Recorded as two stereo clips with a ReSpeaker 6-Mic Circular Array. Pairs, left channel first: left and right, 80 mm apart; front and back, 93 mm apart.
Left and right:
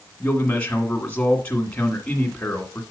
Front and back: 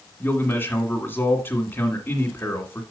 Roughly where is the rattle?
No rattle in this recording.